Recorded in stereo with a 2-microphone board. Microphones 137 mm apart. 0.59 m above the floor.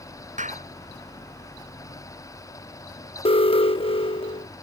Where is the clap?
65° right (ahead or behind).